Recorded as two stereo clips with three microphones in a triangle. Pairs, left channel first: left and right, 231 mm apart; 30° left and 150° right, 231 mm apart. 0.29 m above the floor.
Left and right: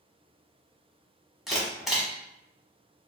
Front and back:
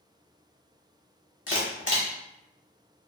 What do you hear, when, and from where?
1.5 s a camera shutter: straight ahead, 1.0 m